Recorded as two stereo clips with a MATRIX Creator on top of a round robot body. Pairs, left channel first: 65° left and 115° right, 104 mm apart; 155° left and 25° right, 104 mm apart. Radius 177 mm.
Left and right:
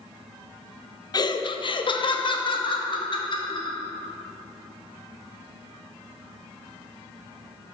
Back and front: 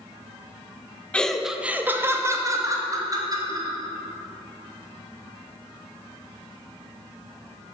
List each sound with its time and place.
1.1 s laughter: 85° left, 0.6 m; by 3.8 s 25° left, 1.6 m